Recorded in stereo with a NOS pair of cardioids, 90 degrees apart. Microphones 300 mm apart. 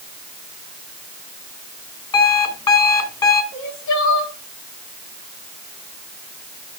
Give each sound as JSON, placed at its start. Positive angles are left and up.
{"t": 2.1, "sound": "an alarm clock", "azimuth_deg": 15, "distance_m": 2.5}
{"t": 3.5, "sound": "crying", "azimuth_deg": 65, "distance_m": 2.0}